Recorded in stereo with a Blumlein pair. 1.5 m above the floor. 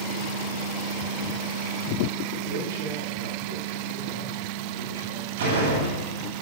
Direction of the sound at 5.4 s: 60° right.